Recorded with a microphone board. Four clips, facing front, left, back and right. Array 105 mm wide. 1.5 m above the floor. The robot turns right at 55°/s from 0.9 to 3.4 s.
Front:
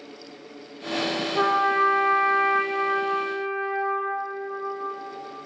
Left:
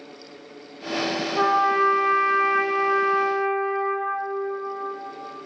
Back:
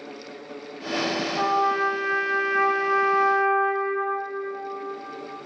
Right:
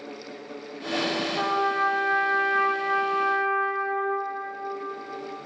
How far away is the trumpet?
About 0.6 m.